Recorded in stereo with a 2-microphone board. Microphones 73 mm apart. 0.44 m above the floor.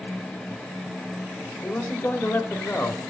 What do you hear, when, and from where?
1.6 s a man speaking: 30° left (ahead or behind), 1.3 m